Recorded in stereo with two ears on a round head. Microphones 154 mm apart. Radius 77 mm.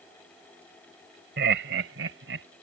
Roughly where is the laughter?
Right.